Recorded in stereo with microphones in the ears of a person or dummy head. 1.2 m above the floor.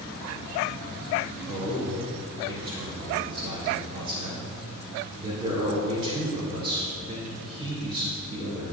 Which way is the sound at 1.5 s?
30° right (ahead or behind).